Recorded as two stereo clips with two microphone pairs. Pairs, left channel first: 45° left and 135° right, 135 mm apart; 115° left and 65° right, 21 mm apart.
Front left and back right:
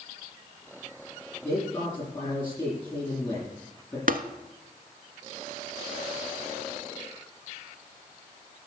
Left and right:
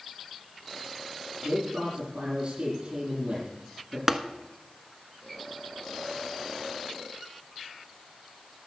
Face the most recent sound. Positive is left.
turn(degrees=-125)